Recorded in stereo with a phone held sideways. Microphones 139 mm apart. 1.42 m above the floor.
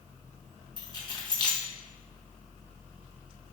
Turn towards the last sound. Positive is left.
turn(degrees=30)  # may be behind; listen again after turning